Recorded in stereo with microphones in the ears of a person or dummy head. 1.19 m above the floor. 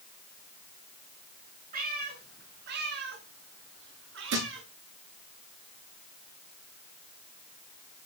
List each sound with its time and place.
1.7 s a cat meowing: 55° right (ahead or behind), 4.5 m; by 4.7 s 75° right (ahead or behind), 4.5 m
4.3 s a thud: 70° right (ahead or behind), 8.5 m